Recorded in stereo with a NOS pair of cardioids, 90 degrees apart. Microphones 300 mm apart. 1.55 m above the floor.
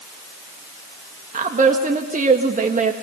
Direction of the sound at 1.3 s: 25° right.